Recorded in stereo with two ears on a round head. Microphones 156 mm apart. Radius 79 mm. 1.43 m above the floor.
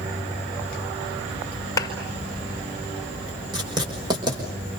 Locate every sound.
1.8 s a clap: 15° left (ahead or behind), 5 m
3.5 s writing: 25° right (ahead or behind), 5.5 m